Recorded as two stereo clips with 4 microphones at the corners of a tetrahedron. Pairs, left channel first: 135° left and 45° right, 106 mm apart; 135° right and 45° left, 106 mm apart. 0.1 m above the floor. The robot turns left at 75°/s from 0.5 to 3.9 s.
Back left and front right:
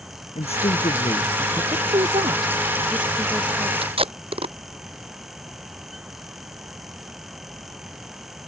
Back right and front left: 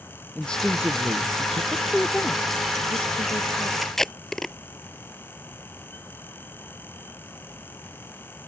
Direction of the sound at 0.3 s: 145° left.